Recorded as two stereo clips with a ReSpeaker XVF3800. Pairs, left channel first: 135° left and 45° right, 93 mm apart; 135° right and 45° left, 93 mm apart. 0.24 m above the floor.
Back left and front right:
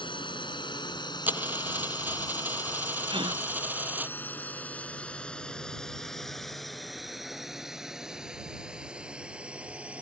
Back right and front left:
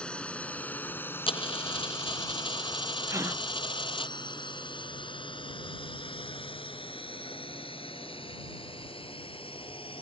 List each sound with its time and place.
0.0 s a drone: 145° left; by 10.0 s 120° right
1.3 s a dropped coin: 115° right
3.1 s a gasp: 15° right